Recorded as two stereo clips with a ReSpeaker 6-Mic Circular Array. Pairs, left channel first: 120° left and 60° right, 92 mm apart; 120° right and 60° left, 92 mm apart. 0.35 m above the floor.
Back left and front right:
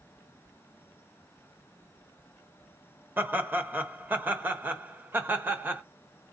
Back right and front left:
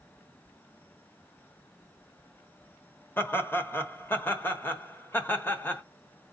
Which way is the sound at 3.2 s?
95° right.